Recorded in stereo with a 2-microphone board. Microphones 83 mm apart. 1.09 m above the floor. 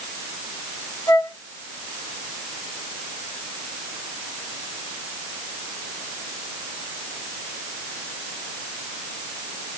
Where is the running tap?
No running tap in this recording.